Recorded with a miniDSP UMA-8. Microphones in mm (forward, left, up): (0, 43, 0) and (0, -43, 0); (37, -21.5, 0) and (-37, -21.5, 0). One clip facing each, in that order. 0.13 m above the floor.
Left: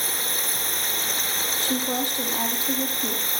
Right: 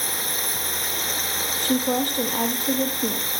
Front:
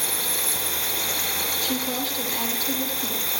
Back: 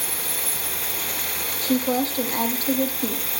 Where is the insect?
5° right, 8 m.